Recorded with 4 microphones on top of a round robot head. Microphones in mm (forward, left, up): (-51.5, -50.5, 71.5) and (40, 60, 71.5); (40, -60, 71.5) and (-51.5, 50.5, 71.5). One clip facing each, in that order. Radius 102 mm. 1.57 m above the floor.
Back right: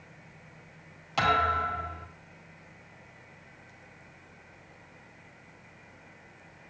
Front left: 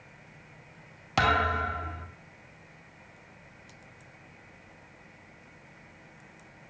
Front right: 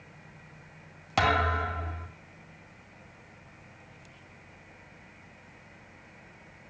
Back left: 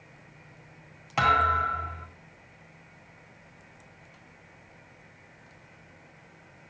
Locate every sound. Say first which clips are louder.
1.2 s a thud: front left 1 dB, even; 10° left, 1.9 m